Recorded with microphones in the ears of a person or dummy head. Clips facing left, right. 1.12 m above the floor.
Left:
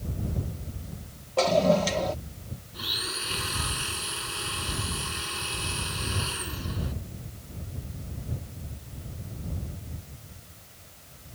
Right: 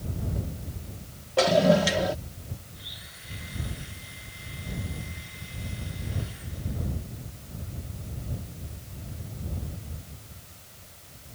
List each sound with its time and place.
1.4 s a toilet flushing: 10° right (ahead or behind)
2.7 s a blender: 80° left